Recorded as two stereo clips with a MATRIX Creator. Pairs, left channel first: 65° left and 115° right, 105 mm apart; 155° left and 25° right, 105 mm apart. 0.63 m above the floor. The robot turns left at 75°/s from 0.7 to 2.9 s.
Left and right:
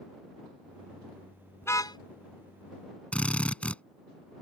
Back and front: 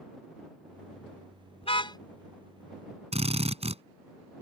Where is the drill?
10° right.